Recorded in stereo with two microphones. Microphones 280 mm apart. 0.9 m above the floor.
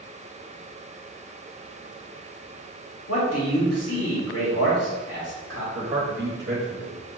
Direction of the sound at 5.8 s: 30° right (ahead or behind).